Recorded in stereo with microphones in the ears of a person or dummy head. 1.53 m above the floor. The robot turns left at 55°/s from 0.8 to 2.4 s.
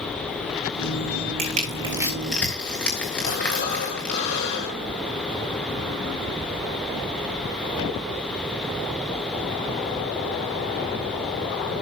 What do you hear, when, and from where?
1.4 s crushing: 45° right (ahead or behind), 3.5 m; by 4.2 s 10° left (ahead or behind), 3.5 m
3.2 s breathing: 70° left (ahead or behind), 7 m